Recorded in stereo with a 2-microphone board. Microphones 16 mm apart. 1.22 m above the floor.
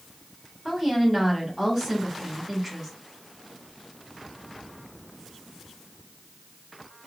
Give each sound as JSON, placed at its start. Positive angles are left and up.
{"t": 0.7, "sound": "a woman speaking", "side_deg": -15, "distance_m": 1.6}